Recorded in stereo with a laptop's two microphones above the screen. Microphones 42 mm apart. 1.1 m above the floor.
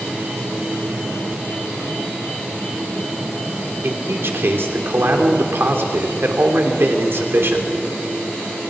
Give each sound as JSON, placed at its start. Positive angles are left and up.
{"t": 3.8, "sound": "a man speaking", "side_deg": -65, "distance_m": 3.0}